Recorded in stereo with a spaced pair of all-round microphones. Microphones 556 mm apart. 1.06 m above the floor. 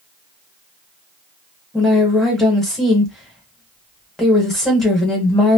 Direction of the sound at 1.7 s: Centre (ahead or behind).